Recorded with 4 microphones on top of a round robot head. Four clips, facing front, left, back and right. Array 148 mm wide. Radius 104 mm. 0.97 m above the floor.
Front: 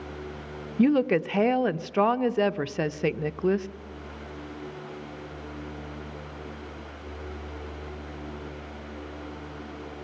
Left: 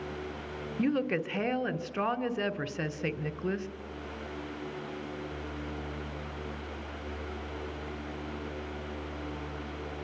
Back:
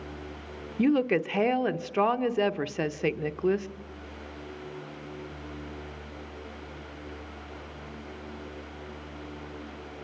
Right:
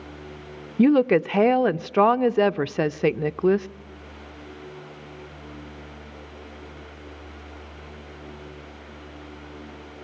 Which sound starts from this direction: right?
A woman speaking, at 0.8 s.